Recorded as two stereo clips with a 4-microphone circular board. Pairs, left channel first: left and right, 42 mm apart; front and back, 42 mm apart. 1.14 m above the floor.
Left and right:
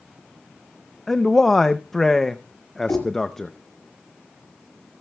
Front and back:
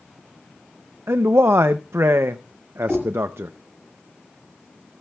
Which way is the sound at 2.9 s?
115° left.